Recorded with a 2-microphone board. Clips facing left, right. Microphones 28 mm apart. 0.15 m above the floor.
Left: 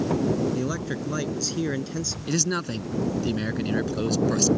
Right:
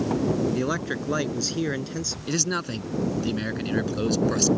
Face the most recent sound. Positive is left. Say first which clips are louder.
# left 1 dB
turn(degrees=-5)  # may be behind; listen again after turning